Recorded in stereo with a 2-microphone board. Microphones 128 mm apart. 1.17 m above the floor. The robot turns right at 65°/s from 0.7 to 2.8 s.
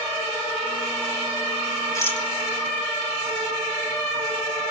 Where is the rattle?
25° left (ahead or behind), 3 m; by 2.3 s 5° left (ahead or behind), 3 m.